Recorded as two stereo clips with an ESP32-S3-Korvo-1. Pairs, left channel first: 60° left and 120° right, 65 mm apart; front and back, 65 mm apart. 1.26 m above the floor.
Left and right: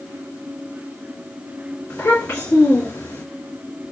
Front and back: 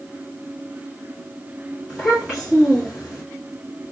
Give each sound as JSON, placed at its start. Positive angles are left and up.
{"t": 1.9, "sound": "a child speaking", "azimuth_deg": 110, "distance_m": 1.6}